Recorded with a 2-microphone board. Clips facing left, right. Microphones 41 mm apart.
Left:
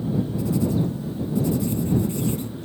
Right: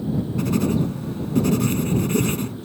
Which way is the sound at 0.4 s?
65° right (ahead or behind).